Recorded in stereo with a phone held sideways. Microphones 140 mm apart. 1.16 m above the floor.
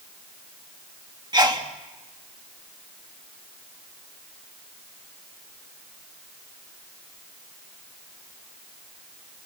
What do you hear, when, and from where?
1.3 s a sneeze: 30° right (ahead or behind), 2.0 m